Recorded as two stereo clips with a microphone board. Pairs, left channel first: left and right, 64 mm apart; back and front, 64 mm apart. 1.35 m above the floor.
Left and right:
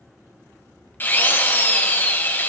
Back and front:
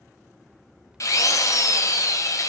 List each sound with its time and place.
1.0 s a drill: 150° left, 0.9 m